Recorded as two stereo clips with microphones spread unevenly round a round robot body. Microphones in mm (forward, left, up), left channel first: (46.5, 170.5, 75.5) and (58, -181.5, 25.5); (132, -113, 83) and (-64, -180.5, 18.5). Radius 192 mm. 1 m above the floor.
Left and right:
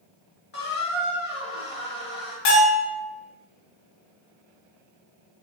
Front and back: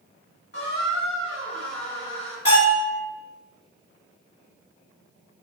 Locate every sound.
0.5 s a squeak: 45° left, 1.0 m
2.5 s a bell: 105° left, 1.7 m